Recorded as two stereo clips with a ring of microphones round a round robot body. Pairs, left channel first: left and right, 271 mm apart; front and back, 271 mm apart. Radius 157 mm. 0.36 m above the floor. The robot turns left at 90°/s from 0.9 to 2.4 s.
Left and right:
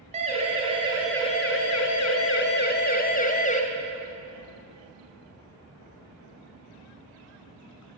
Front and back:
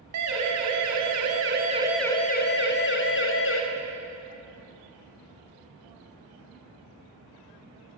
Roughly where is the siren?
Behind right.